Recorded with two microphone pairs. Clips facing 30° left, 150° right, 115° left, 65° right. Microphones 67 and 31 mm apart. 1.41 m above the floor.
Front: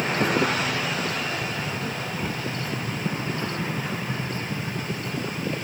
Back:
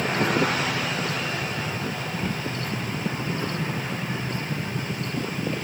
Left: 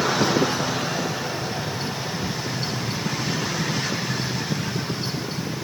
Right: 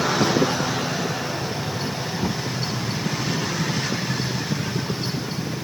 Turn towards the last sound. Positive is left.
turn(degrees=-55)